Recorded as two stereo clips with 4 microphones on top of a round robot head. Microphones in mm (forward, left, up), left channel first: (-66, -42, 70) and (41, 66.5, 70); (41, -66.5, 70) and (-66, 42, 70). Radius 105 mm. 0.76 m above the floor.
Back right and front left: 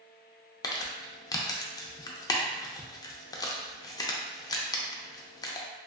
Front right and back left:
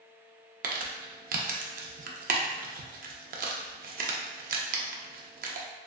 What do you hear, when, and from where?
0.6 s crumpling: 160° left, 0.5 m